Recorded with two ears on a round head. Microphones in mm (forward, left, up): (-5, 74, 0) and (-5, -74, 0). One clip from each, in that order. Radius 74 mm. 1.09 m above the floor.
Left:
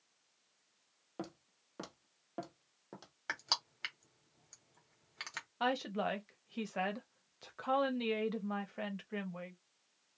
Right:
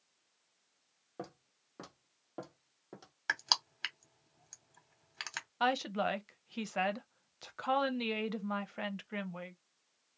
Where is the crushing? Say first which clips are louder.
Right 5 dB; 30° right (ahead or behind), 0.8 m.